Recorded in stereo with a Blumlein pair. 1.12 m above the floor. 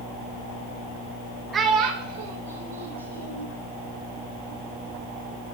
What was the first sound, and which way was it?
A child speaking, 20° right.